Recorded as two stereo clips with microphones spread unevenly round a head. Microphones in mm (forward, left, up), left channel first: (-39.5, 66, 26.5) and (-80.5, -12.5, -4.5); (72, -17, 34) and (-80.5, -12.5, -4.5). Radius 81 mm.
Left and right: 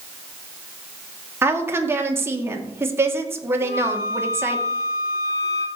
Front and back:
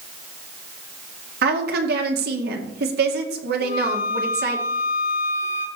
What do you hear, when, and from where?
1.4 s a woman speaking: straight behind, 2 m
3.6 s a flute: 50° left, 3 m